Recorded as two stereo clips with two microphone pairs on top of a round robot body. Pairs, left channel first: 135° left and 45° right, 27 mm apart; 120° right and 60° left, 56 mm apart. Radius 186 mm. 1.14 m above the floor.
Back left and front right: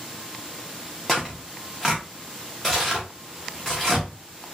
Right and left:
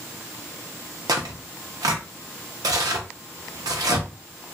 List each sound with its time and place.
1.1 s tearing paper: 60° left, 0.5 m